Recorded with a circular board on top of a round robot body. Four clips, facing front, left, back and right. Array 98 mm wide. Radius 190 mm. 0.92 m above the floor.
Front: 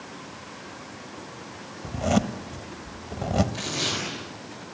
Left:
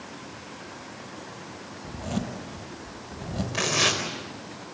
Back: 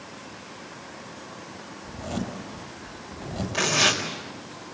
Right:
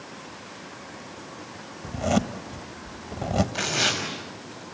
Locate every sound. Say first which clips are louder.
1.8 s a zipper: right 7 dB, front 8 dB; 40° right, 1.5 m
3.5 s tearing paper: left 1 dB, back 6 dB; 135° left, 5 m